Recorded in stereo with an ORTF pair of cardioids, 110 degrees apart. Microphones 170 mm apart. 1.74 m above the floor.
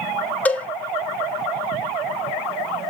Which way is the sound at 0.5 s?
10° left.